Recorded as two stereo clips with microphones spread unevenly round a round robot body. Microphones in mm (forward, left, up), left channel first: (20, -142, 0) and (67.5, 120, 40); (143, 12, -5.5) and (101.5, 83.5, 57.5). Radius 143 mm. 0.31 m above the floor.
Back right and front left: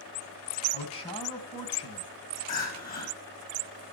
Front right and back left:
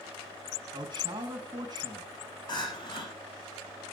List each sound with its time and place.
0.7 s a man speaking: 165° right, 3.5 m
2.5 s crying: 45° right, 7 m